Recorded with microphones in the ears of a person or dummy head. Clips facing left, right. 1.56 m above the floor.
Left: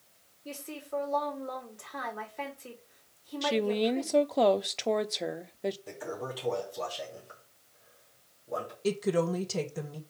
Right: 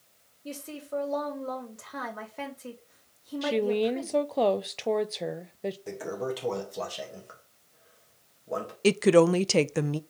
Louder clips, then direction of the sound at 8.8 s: Right 9 dB; 70° right (ahead or behind).